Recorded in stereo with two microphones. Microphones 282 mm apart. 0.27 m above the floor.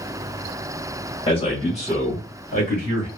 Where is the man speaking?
20° left (ahead or behind), 1.5 m; by 3.1 s 30° left (ahead or behind), 1.8 m.